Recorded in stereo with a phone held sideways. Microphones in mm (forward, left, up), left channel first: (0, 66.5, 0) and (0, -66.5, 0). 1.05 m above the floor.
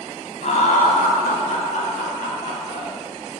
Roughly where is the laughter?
Left.